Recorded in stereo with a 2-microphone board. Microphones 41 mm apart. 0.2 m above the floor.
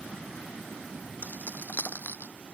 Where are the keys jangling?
50° left (ahead or behind); by 2.3 s 55° left (ahead or behind).